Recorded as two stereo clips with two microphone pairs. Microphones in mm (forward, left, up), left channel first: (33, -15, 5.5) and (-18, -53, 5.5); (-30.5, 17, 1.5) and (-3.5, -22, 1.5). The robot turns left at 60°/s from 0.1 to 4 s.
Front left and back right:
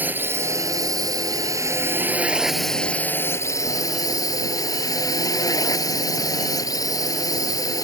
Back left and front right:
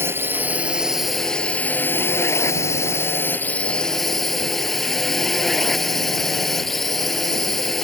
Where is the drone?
85° right; by 7.8 s 40° left.